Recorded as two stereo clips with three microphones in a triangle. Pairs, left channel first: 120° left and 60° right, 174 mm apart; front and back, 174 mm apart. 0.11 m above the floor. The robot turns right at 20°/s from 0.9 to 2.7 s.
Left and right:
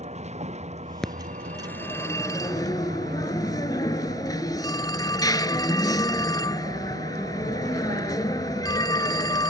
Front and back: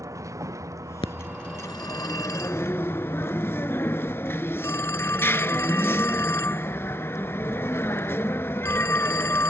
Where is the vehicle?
110° right; by 9.5 s 70° right.